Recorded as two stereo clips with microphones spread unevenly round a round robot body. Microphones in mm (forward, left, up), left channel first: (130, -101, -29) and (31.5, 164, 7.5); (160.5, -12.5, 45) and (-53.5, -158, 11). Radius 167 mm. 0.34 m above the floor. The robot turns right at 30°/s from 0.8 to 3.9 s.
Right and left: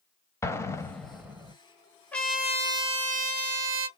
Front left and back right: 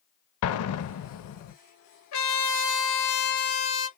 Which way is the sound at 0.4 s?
5° left.